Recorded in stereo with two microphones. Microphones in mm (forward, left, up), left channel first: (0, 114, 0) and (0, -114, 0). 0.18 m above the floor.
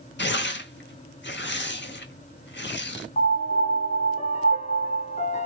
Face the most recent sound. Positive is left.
turn(degrees=30)  # may be behind; listen again after turning